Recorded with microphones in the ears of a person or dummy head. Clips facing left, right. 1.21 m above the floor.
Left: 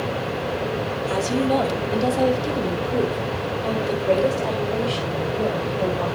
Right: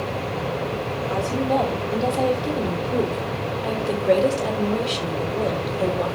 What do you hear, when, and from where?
1.1 s a woman speaking: 25° left (ahead or behind), 3 m; by 6.1 s 30° right (ahead or behind), 5.5 m